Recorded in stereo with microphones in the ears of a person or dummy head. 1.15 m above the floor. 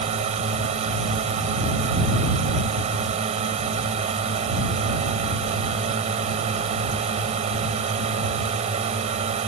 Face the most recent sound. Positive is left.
turn(degrees=-40)  # may be behind; listen again after turning